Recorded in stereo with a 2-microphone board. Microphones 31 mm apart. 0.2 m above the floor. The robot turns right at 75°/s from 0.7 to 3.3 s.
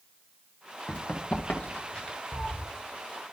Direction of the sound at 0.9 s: 35° left (ahead or behind).